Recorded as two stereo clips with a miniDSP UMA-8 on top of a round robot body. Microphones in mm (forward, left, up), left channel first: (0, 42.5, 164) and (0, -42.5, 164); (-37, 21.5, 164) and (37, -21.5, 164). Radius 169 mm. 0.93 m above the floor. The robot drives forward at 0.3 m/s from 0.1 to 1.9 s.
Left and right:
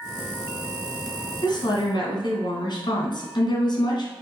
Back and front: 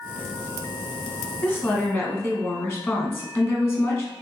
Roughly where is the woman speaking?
Left.